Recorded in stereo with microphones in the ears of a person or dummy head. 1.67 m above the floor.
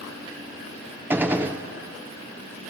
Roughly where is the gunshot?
Centre.